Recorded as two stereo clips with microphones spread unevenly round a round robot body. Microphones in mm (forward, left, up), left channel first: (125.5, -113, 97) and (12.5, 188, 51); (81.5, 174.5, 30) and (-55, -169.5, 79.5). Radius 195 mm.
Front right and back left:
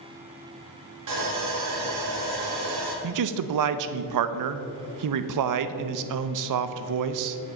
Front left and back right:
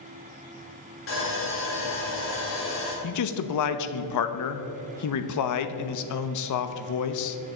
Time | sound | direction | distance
1.1 | sawing | 120° left | 2 m
3.0 | a man speaking | 105° left | 0.7 m